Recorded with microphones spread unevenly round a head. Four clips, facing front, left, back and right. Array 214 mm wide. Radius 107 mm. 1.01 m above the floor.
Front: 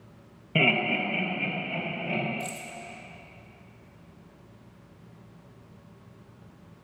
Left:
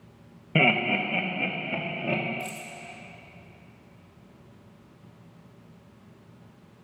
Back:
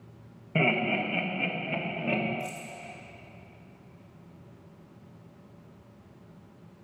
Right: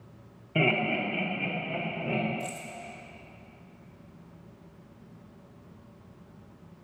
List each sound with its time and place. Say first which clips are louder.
0.6 s laughter: left 3 dB, front 1 dB; 80° left, 1.5 m; by 2.2 s 125° left, 2.5 m
2.4 s keys jangling: even, front 1 dB; 45° left, 1.8 m